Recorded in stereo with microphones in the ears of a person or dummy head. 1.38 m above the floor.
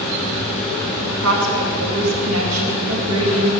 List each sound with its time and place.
1.1 s a woman speaking: 90° right, 1.8 m